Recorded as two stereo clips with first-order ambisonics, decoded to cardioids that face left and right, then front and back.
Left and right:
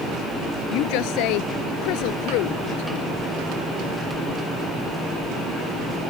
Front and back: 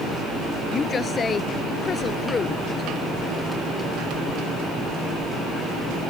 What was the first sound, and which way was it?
A woman speaking, 70° left.